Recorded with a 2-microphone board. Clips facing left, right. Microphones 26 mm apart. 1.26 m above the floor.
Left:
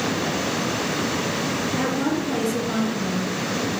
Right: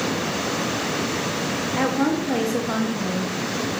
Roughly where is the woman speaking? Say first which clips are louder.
Right 4 dB; right.